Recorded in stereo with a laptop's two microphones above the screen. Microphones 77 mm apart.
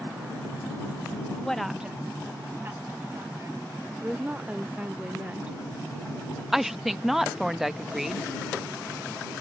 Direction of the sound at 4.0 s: 15° right (ahead or behind).